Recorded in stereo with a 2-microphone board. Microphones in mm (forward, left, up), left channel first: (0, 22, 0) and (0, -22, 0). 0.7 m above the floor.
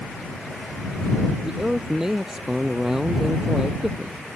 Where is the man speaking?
10° right (ahead or behind).